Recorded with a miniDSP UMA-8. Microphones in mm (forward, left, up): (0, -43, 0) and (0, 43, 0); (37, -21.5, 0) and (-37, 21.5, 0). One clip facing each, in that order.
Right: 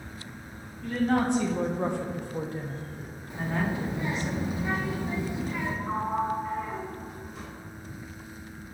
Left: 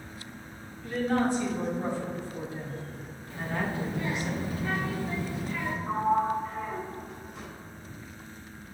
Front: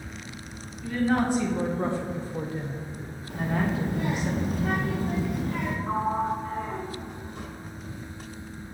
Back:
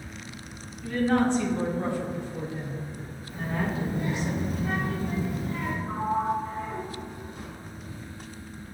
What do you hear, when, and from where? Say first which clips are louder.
0.8 s a woman speaking: right 2 dB, back 1 dB; 115° right, 1.8 m; by 4.3 s 5° right, 1.6 m
3.3 s a child speaking: right 2 dB, front 3 dB; 20° right, 1.1 m
5.9 s a sliding door: left 4 dB, even; 5° right, 1.7 m